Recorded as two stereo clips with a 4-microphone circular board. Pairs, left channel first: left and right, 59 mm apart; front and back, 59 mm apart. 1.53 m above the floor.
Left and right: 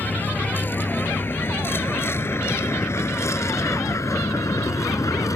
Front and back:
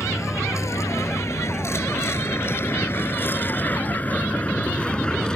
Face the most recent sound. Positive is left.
turn(degrees=80)